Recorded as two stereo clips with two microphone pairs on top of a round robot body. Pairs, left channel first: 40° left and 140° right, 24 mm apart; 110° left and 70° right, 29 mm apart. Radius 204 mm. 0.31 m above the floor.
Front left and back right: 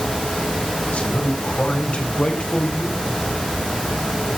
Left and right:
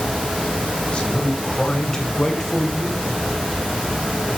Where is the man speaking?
55° left, 3.5 m; by 3.0 s 15° left, 3 m.